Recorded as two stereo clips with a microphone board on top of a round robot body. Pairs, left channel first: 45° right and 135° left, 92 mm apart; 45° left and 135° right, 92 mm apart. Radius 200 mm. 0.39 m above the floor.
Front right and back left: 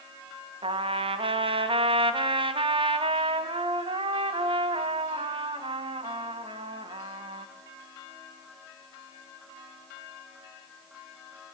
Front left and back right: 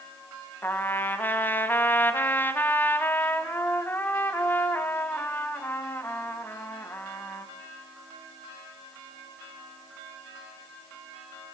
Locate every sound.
0.6 s a trumpet: 115° left, 1.8 m